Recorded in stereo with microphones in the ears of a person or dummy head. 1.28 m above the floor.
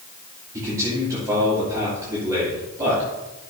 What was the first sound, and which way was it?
A man speaking, 20° right (ahead or behind).